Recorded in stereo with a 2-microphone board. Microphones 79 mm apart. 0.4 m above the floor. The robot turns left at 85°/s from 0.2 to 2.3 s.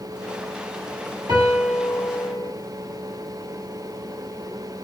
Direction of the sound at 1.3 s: 120° right.